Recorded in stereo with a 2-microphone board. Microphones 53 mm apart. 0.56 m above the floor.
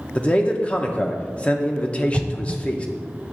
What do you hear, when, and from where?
0.1 s a man speaking: 25° left (ahead or behind), 0.7 m
2.1 s an explosion: centre (ahead or behind), 0.6 m